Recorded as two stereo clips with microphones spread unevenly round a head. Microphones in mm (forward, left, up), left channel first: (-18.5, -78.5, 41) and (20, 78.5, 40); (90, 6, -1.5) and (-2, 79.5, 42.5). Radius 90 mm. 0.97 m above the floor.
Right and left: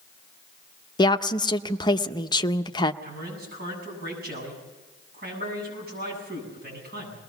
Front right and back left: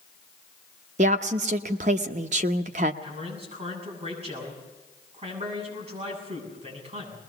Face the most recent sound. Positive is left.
turn(degrees=110)